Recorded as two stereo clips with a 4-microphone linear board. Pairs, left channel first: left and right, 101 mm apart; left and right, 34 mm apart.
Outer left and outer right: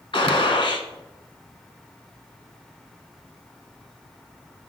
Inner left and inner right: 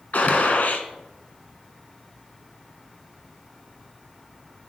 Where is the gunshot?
60° left (ahead or behind), 0.8 m.